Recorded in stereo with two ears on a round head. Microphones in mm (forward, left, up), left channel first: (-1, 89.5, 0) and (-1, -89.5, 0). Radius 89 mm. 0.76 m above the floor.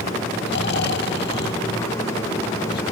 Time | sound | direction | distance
0.5 | snoring | 55° left (ahead or behind) | 0.9 m